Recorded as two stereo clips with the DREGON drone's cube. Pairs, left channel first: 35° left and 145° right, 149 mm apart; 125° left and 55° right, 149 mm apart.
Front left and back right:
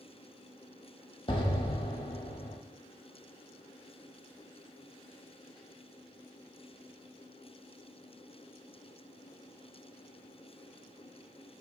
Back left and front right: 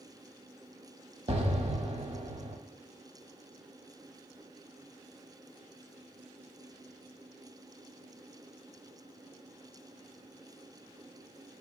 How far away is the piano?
No piano in this recording.